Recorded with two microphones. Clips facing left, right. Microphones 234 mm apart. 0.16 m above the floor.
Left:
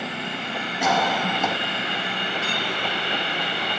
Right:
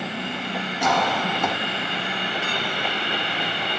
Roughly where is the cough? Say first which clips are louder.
Even; centre.